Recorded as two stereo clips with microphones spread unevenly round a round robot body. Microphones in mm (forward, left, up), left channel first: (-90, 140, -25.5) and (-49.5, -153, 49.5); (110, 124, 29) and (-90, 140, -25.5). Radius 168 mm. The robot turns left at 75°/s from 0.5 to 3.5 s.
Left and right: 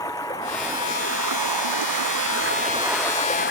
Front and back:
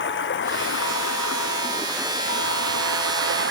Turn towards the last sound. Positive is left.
turn(degrees=150)